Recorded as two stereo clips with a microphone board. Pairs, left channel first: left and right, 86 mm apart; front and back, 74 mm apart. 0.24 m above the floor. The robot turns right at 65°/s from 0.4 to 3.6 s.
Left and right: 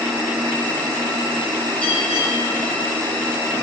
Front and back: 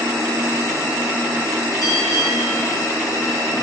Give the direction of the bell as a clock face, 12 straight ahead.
11 o'clock.